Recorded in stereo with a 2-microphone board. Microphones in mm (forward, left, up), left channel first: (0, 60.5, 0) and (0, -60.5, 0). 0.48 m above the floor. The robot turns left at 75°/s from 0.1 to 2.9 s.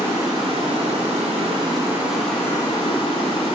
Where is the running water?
25° right, 0.8 m; by 3.6 s 125° left, 0.8 m.